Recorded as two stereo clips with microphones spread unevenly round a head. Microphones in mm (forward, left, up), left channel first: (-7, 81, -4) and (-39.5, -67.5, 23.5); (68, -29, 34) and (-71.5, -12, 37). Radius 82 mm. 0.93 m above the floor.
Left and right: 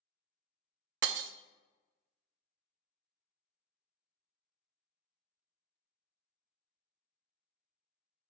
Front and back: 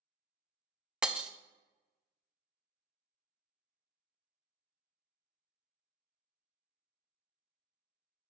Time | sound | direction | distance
1.0 | breaking glass | 105° right | 0.5 m